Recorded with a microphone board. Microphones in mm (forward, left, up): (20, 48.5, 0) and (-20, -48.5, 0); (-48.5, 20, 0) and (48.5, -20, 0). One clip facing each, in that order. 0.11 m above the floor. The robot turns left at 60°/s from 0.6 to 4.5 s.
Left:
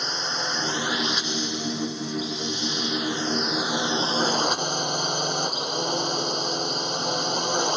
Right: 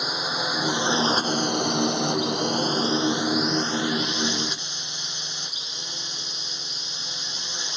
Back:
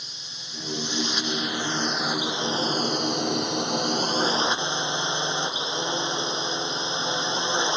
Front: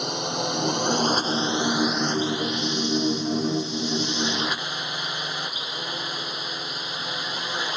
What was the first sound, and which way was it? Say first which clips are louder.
A drone: right 2 dB, front 21 dB; 30° right.